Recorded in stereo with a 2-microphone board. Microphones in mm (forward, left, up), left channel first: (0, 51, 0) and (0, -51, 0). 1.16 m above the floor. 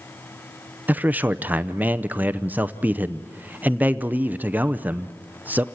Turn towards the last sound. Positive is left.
turn(degrees=-20)  # may be behind; listen again after turning